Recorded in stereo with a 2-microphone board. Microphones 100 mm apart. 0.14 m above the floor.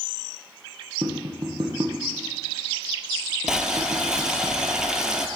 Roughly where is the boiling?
Centre.